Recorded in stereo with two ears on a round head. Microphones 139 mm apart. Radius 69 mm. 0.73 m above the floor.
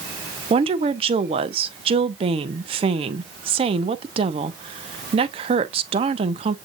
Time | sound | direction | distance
0.5 | a woman speaking | 35° right (ahead or behind) | 0.7 m